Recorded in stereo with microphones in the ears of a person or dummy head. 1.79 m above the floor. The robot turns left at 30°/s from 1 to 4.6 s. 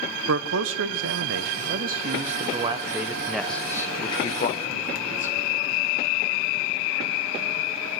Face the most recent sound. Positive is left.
turn(degrees=145)